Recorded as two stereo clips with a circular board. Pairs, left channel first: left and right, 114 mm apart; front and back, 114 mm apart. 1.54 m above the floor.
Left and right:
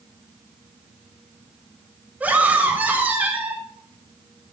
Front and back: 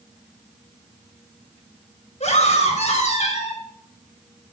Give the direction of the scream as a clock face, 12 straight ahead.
12 o'clock.